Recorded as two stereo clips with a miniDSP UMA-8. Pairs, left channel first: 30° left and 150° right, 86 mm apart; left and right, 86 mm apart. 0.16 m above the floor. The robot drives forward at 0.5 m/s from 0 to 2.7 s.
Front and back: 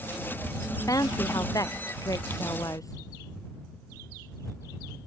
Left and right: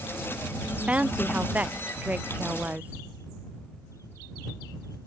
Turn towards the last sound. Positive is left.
turn(degrees=-15)